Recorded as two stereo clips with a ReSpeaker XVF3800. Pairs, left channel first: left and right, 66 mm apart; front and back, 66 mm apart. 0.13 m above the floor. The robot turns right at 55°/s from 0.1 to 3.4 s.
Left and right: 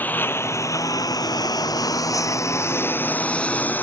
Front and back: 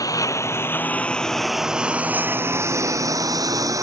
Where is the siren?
No siren in this recording.